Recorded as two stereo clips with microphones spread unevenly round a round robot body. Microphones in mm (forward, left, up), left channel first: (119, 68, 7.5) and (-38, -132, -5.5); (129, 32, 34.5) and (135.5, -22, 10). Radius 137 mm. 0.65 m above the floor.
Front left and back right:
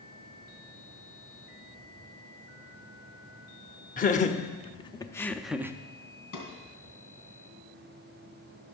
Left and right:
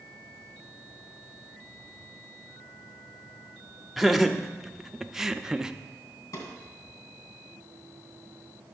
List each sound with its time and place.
4.0 s laughter: 5° right, 1.2 m; by 5.8 s 60° right, 0.6 m
6.3 s a drawer: 95° left, 2.5 m